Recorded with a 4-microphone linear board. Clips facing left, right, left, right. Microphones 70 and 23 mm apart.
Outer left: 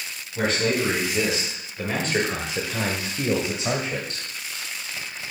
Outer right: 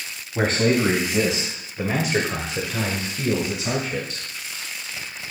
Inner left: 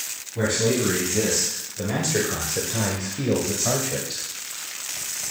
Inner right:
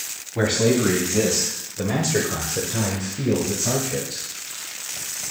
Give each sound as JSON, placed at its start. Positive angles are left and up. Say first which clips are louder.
{"t": 0.3, "sound": "a man speaking", "louder": "outer right 3 dB, inner right 3 dB", "side_deg": -45, "distance_m": 2.0}